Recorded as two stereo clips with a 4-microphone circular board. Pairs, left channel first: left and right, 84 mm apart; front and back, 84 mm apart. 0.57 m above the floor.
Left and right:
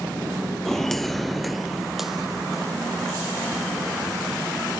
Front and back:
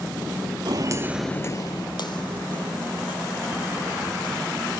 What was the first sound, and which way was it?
Footsteps, 175° left.